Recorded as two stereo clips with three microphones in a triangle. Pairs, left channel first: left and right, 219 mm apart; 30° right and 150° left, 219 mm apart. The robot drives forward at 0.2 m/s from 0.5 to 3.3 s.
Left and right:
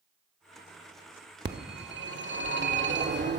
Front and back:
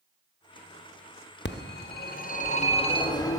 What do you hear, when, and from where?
1.4 s a phone ringing: 55° right, 0.6 m; by 3.4 s 105° right, 0.5 m